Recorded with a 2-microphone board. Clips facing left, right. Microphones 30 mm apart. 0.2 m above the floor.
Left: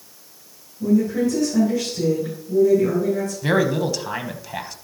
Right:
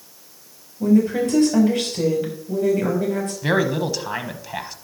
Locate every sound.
0.8 s a woman speaking: 75° right (ahead or behind), 5.5 m
3.4 s a man speaking: 10° right (ahead or behind), 1.1 m